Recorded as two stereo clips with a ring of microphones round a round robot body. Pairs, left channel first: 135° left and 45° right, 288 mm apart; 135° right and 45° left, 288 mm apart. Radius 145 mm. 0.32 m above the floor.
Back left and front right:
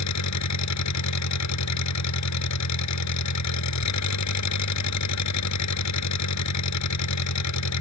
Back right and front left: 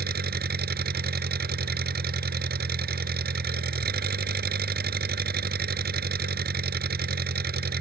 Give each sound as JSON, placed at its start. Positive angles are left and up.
{"t": 0.0, "sound": "an engine running", "azimuth_deg": 105}